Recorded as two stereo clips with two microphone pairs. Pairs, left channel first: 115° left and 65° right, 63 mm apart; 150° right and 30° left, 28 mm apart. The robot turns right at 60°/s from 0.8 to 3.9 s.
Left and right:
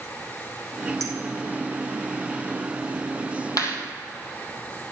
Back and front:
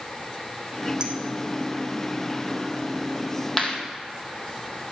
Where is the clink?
30° right, 3 m; by 1.1 s 25° right, 3 m.